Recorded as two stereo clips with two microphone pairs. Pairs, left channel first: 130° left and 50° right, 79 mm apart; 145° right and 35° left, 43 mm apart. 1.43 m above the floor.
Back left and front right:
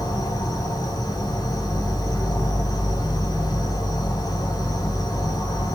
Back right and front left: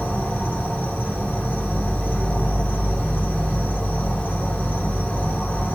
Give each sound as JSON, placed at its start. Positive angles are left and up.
{"t": 0.0, "sound": "an insect", "azimuth_deg": 165, "distance_m": 1.5}